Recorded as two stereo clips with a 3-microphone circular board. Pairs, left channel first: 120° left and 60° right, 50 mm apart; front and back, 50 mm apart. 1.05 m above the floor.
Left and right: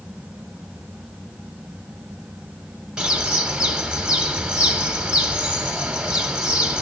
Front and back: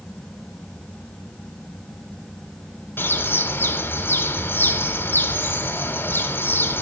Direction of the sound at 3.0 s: 5° left.